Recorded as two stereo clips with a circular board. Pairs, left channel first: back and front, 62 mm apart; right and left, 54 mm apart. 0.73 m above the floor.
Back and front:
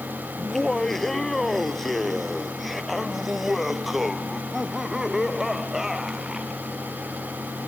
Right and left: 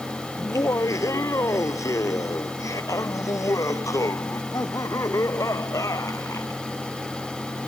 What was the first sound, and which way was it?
Laughter, 95° right.